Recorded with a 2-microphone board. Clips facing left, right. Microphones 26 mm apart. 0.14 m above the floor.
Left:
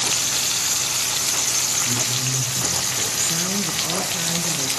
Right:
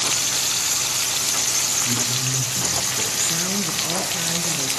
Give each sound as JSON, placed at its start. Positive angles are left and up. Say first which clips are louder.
{"t": 1.9, "sound": "a man speaking", "louder": "even", "side_deg": -55, "distance_m": 8.0}
{"t": 3.2, "sound": "a woman speaking", "louder": "even", "side_deg": 0, "distance_m": 1.8}